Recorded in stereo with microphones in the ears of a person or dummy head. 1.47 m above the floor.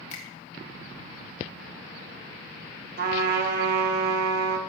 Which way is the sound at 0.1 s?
45° left (ahead or behind).